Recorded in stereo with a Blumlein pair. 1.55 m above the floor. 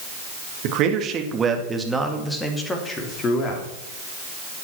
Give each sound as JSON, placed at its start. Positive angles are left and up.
{"t": 0.6, "sound": "a man speaking", "azimuth_deg": -40, "distance_m": 2.0}